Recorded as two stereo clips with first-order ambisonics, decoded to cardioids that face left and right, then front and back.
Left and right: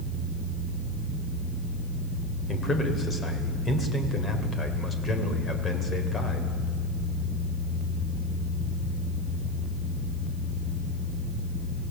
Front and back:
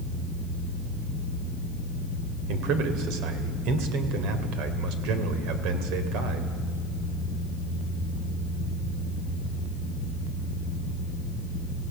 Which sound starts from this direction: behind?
A man speaking, at 2.5 s.